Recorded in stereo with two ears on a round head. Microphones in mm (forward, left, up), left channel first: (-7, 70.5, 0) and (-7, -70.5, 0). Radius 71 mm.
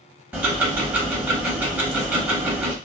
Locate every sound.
0.3 s ticking: 10° right (ahead or behind), 0.7 m